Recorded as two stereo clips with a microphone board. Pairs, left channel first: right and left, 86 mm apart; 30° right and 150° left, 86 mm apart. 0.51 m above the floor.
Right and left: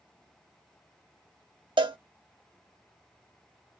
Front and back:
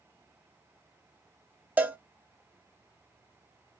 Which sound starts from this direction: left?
A cowbell, at 1.8 s.